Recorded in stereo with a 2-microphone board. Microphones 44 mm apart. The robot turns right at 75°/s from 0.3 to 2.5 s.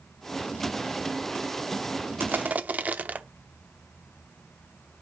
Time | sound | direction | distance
2.2 | crushing | 50° right (ahead or behind) | 0.6 m